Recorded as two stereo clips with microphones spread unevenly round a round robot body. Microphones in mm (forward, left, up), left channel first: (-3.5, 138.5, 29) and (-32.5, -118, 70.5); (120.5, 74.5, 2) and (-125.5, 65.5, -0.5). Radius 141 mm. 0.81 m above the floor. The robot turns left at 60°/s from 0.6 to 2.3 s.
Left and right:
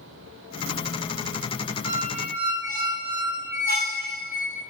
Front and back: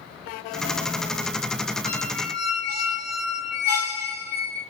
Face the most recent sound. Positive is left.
turn(degrees=-40)